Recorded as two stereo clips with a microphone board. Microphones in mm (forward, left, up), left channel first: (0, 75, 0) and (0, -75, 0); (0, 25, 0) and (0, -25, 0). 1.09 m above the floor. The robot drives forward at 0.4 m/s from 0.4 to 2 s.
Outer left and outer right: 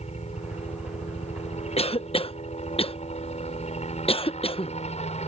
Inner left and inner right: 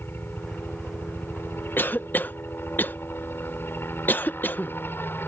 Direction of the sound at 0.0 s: 45° left (ahead or behind).